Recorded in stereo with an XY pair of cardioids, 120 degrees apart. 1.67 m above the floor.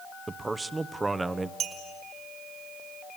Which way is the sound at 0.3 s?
20° right.